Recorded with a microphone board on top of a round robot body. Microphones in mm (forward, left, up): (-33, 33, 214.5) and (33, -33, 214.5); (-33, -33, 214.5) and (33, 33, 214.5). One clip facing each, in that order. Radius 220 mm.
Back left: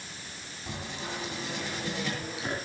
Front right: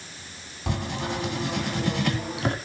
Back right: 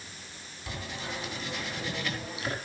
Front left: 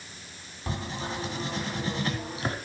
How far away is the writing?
About 2 m.